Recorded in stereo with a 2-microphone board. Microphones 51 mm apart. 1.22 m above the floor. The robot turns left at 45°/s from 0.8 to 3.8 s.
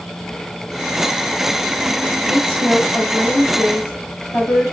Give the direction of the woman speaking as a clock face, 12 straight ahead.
5 o'clock.